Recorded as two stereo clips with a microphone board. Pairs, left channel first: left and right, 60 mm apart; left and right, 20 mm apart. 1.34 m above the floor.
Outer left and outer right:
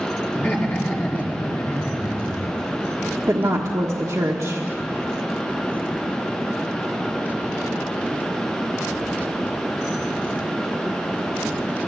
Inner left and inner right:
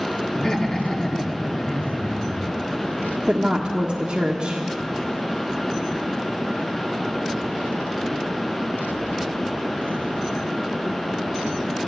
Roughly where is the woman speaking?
Right.